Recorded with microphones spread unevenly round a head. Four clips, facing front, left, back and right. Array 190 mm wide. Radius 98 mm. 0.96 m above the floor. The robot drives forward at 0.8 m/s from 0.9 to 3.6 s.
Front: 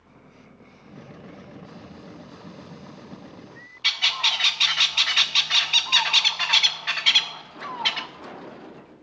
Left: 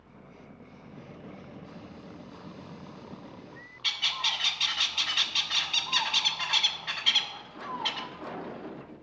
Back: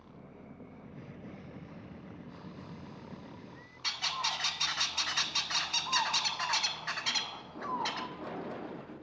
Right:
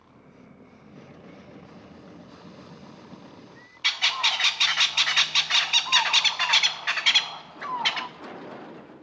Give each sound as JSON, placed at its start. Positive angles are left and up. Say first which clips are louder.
{"t": 3.8, "sound": "a bird", "louder": "right 7 dB, front 6 dB", "azimuth_deg": -55, "distance_m": 0.5}